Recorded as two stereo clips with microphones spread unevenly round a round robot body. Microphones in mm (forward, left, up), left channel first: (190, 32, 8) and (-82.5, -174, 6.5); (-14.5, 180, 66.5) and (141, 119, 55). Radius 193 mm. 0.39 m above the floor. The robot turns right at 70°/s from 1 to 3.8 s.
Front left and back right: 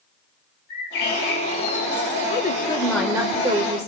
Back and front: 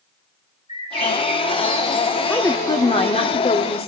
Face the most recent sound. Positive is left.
turn(degrees=-175)